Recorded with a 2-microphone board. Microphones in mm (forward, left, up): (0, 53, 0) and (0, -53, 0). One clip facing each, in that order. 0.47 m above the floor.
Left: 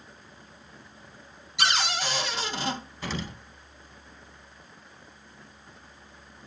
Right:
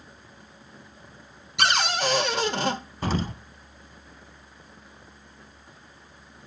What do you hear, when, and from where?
1.6 s a cupboard door: 60° right (ahead or behind), 1.1 m
3.0 s an explosion: 45° right (ahead or behind), 0.6 m